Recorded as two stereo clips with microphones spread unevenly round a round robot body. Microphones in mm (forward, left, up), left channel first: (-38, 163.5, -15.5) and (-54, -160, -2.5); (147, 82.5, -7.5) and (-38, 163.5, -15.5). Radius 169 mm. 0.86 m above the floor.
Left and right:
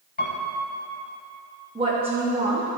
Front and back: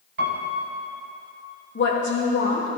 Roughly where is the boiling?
No boiling in this recording.